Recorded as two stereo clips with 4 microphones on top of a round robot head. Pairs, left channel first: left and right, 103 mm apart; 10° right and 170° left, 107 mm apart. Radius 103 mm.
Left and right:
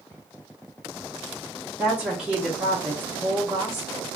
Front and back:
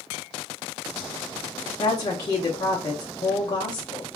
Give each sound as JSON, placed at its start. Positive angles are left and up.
{"t": 1.8, "sound": "a woman speaking", "azimuth_deg": -10, "distance_m": 0.9}